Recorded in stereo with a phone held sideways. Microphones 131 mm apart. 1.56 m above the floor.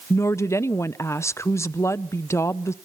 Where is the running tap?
No running tap in this recording.